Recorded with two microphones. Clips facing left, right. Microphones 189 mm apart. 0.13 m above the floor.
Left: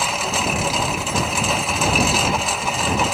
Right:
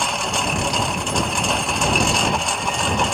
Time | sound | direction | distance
0.0 | a lawn mower | 5° left (ahead or behind) | ?